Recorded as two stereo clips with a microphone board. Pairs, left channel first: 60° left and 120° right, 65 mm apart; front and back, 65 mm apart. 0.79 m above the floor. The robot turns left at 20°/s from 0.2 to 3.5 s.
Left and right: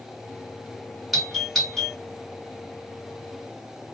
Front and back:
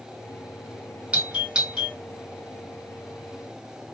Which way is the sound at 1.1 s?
145° left.